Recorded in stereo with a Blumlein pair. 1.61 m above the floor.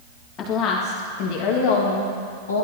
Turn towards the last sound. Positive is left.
turn(degrees=65)